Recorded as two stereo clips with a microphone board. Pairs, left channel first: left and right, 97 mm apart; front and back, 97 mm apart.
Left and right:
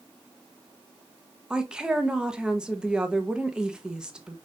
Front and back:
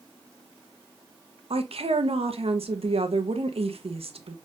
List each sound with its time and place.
1.5 s a woman speaking: 170° right, 1.0 m